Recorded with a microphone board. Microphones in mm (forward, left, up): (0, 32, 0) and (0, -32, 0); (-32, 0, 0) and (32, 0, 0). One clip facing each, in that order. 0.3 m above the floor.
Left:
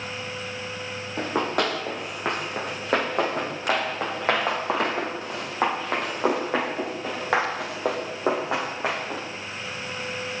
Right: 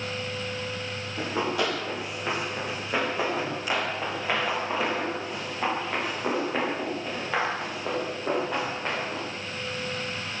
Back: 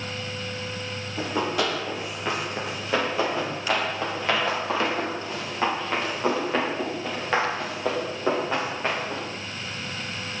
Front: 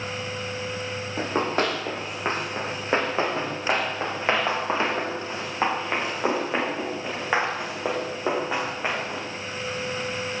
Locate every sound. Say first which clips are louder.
1.2 s running footsteps: left 3 dB, front 1 dB; 50° left, 7.5 m; by 9.2 s 80° left, 9 m